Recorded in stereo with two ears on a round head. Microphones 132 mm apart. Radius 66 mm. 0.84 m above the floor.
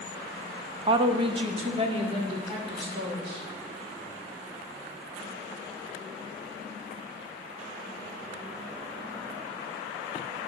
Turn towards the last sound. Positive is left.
turn(degrees=-40)  # may be behind; listen again after turning